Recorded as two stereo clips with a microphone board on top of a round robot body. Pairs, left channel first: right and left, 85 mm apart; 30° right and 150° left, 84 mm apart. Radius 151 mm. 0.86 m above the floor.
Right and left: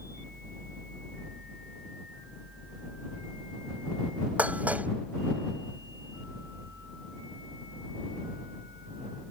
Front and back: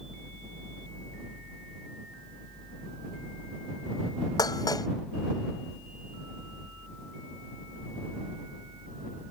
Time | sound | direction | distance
4.4 | dishes clattering | 15° left | ?